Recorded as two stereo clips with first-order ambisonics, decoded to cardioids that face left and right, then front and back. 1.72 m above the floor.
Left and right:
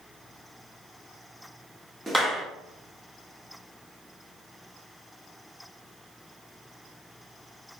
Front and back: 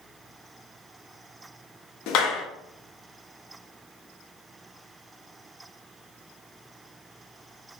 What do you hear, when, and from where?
2.1 s a clap: 5° left, 0.6 m